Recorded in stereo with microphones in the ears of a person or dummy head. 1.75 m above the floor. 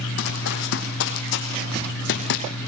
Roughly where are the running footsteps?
Left.